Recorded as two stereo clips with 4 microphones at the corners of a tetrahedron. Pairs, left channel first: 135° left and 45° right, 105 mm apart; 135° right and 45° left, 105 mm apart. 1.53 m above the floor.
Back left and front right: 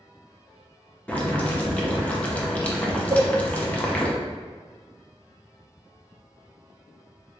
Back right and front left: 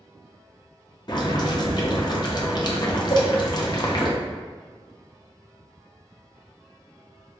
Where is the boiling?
150° right, 0.6 m.